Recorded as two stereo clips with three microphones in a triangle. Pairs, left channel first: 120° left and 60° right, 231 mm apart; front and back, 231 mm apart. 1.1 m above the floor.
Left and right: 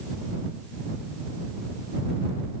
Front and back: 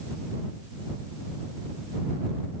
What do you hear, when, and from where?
Only background noise.